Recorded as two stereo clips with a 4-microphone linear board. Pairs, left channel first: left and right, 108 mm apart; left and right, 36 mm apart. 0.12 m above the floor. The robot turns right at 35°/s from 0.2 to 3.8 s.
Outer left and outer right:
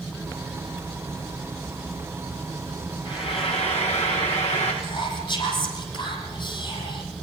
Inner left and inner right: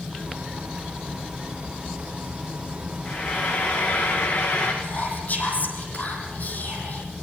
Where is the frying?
45° left (ahead or behind), 8 m; by 4.7 s 70° left (ahead or behind), 8 m.